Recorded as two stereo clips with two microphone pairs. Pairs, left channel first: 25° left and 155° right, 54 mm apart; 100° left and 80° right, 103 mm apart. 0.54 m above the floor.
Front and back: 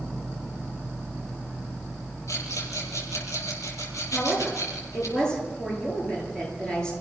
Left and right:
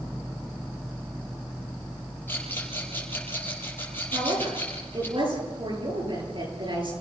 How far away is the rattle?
About 7 m.